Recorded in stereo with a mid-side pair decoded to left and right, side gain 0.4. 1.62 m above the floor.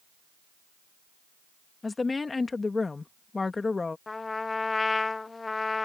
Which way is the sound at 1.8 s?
30° left.